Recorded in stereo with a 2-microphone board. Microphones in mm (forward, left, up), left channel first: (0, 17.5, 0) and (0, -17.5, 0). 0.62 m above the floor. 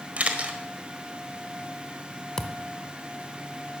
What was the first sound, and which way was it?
A camera shutter, 45° right (ahead or behind).